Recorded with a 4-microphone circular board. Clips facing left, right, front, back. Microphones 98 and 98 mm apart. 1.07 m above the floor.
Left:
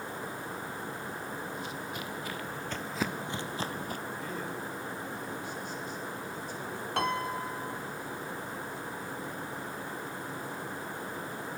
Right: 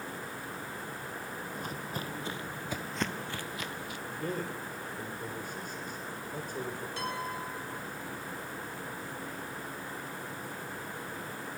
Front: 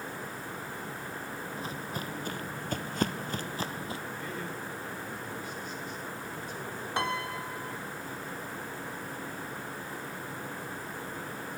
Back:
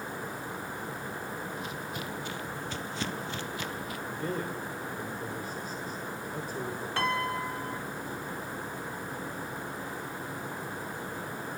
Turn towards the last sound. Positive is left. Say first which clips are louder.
# left 8 dB, back 2 dB
turn(degrees=70)